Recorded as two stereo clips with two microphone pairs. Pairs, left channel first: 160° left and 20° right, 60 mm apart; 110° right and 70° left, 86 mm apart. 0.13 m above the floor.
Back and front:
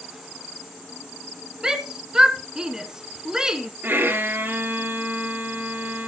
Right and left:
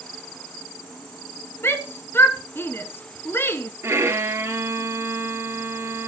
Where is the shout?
85° right, 1.2 m.